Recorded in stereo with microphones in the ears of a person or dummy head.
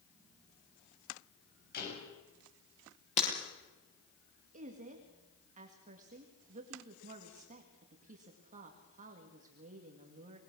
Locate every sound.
1.7 s a door slam: 55° left (ahead or behind), 7 m
3.2 s breaking glass: 35° left (ahead or behind), 7.5 m
4.5 s a woman speaking: 40° right (ahead or behind), 2.5 m